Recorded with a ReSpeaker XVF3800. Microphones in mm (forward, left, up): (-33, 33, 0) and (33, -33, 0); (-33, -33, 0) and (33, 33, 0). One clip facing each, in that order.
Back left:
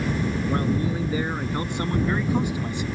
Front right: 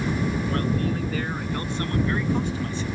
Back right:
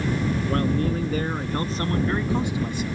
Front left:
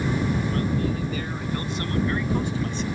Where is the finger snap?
I don't hear a finger snap.